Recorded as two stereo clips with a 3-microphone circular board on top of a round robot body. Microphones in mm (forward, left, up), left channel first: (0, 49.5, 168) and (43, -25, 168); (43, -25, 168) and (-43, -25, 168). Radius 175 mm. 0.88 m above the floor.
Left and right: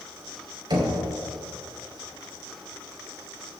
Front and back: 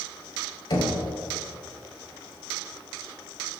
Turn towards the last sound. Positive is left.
turn(degrees=-30)